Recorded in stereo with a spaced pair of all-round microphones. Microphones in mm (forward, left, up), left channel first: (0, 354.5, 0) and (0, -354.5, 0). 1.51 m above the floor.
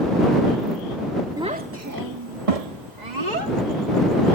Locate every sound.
1.4 s a child speaking: 5° right (ahead or behind); by 4.3 s 70° right (ahead or behind)